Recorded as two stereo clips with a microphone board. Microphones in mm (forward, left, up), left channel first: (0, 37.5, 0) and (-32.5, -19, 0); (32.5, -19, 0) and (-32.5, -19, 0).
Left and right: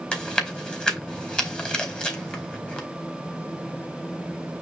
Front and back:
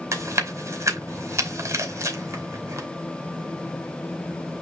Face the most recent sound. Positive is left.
turn(degrees=135)